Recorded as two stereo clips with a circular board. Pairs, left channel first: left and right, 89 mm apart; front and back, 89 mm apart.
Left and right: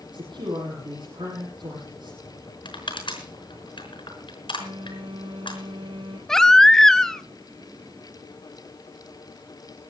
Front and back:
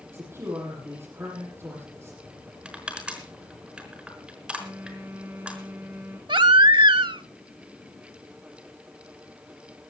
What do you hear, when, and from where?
0.1 s a man speaking: 120° right, 8.5 m
2.6 s crushing: 100° left, 4.5 m
4.6 s a phone buzzing: 110° right, 4.5 m
6.3 s a baby crying: 175° left, 0.5 m